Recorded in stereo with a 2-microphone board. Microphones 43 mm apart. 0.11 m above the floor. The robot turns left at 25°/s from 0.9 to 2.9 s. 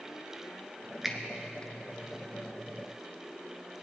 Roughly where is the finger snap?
Centre.